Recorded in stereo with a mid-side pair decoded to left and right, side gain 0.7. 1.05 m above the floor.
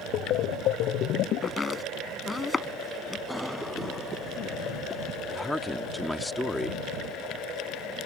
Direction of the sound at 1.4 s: 15° left.